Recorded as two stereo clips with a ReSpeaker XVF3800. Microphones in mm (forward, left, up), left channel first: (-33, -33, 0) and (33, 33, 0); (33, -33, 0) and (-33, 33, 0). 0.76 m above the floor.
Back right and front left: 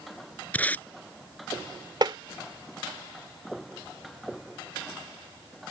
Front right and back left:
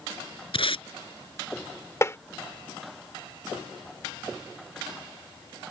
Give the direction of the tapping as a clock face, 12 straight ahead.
12 o'clock.